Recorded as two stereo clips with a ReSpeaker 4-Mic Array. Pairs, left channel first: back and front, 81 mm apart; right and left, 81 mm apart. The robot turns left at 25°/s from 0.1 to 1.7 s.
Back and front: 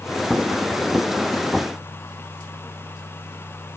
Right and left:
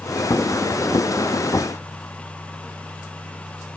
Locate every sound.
Only background noise.